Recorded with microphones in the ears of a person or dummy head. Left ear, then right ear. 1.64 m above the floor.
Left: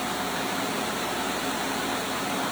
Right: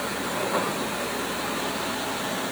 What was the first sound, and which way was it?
Only background noise.